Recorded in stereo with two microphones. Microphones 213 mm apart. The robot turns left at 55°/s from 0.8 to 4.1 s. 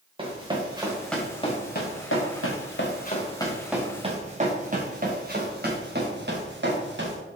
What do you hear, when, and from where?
0.2 s running footsteps: 25° right (ahead or behind), 2.5 m; by 7.2 s 60° right (ahead or behind), 3 m